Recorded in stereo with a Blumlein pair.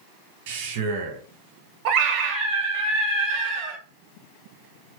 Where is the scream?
45° right, 0.7 m.